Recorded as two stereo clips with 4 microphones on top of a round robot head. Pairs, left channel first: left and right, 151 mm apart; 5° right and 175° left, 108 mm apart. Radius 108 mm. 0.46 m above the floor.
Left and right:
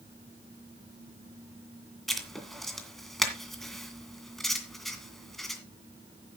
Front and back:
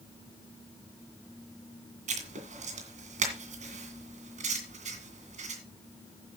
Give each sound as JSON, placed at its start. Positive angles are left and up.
{"t": 2.1, "sound": "writing", "azimuth_deg": 180, "distance_m": 2.0}